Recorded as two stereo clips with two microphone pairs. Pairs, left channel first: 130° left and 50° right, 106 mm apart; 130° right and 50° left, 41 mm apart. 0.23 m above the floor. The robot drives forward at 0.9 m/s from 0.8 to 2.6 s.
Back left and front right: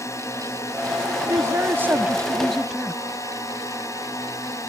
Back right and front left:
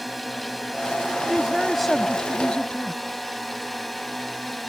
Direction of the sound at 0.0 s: 135° left.